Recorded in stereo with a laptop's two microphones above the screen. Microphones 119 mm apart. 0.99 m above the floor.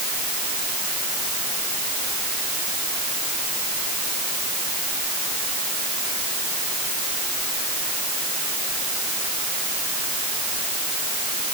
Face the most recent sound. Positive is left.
No sound to turn to.